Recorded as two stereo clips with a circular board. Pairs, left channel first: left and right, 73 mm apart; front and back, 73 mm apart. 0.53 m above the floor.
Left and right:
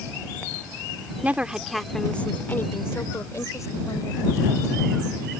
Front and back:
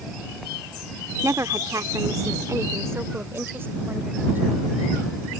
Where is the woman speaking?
155° right; by 4.6 s 115° left.